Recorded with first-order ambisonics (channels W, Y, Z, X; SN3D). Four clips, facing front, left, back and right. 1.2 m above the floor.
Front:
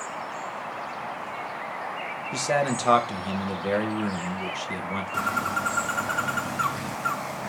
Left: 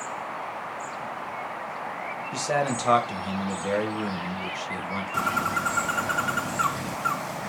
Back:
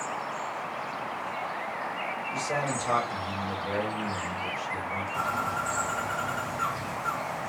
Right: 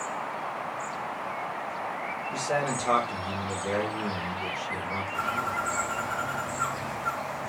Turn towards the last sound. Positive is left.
turn(degrees=55)